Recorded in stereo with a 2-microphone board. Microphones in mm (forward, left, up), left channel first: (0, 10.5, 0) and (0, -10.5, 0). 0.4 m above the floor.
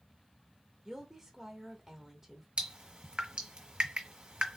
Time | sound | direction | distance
0.8 | a woman speaking | 20° right (ahead or behind) | 1.4 m
2.6 | dripping | 40° right (ahead or behind) | 1.2 m